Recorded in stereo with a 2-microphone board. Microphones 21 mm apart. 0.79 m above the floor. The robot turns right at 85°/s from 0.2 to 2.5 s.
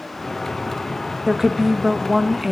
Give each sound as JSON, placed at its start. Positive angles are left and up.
{"t": 1.3, "sound": "a woman speaking", "side_deg": -20, "distance_m": 0.7}